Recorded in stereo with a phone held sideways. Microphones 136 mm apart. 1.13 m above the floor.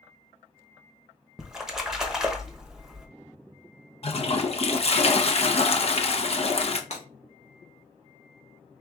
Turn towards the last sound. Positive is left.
turn(degrees=55)  # may be behind; listen again after turning